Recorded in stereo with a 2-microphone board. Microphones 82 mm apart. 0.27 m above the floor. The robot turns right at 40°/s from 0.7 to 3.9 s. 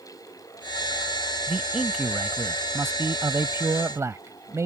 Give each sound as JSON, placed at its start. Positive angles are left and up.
{"t": 1.5, "sound": "a man speaking", "azimuth_deg": -175}